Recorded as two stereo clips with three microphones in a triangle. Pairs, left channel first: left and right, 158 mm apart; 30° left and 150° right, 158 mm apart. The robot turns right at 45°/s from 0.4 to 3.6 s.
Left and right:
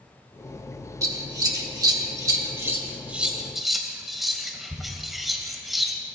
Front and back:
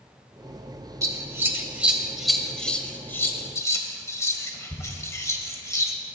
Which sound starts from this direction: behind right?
Scissors, at 1.0 s.